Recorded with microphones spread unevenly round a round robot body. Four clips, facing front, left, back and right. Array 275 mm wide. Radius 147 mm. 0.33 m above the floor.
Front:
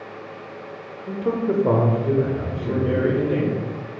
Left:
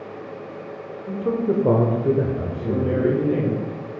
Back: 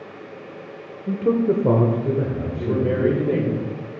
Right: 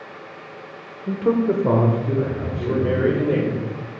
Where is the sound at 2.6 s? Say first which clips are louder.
Right 2 dB, back 2 dB; 135° right, 1.2 m.